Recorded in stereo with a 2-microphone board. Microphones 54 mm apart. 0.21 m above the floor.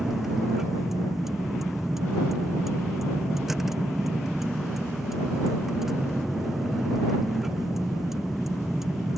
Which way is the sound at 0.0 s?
5° right (ahead or behind).